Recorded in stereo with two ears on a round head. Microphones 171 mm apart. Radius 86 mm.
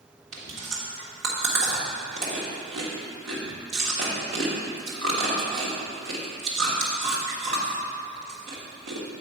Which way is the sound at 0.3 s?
65° right (ahead or behind).